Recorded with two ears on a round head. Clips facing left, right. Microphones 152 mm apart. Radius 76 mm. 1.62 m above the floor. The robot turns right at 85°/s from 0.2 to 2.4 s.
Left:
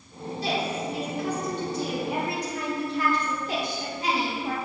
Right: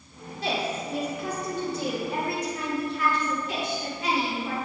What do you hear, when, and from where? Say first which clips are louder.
0.4 s a woman speaking: even; 135° right, 2 m; by 4.5 s 30° left, 2 m